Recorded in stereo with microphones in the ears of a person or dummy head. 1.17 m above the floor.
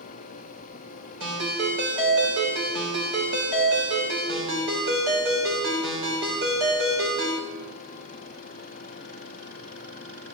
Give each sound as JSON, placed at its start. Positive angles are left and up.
{"t": 1.2, "sound": "a ringtone", "side_deg": -85, "distance_m": 3.0}